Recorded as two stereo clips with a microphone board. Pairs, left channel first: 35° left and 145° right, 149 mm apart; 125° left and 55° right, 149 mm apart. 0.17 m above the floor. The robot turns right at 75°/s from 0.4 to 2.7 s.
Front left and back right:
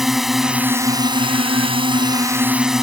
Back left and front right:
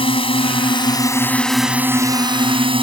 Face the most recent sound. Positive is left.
turn(degrees=-60)